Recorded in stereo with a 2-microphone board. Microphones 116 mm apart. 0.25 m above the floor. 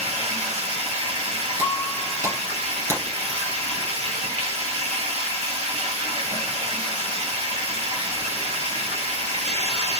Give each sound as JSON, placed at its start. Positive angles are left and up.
{"t": 0.0, "sound": "running water", "side_deg": -75, "distance_m": 0.9}
{"t": 1.6, "sound": "breaking glass", "side_deg": -30, "distance_m": 1.3}